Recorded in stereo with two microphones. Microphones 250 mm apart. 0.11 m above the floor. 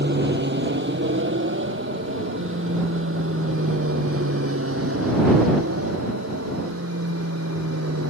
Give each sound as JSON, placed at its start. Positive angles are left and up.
{"t": 0.0, "sound": "an aircraft", "side_deg": -40}